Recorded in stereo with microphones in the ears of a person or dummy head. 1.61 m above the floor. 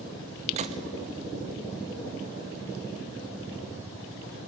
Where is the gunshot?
35° right (ahead or behind), 1.3 m.